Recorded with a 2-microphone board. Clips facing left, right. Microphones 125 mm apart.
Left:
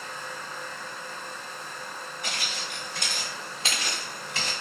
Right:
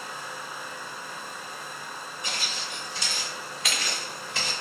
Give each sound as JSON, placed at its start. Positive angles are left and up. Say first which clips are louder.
{"t": 2.2, "sound": "footsteps", "louder": "even", "side_deg": 80, "distance_m": 1.4}